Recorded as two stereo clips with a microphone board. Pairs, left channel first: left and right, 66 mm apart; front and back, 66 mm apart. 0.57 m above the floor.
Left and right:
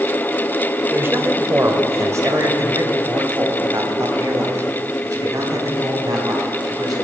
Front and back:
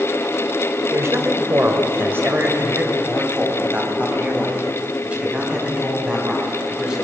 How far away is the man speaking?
About 2 m.